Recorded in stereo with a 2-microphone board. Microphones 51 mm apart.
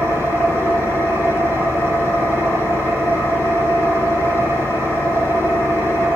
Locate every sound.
0.0 s an engine running: 50° right (ahead or behind), 5 m